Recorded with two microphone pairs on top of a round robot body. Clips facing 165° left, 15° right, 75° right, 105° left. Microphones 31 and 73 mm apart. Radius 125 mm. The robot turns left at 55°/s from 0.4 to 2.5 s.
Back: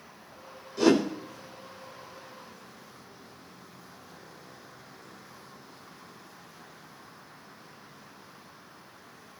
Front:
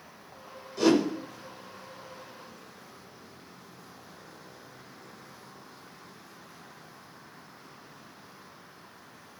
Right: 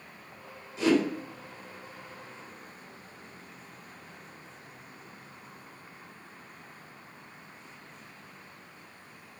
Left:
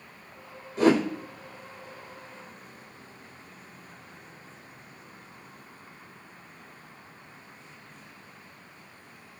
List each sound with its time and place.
0.8 s a whoosh: 80° left, 3 m; by 1.0 s 65° left, 3 m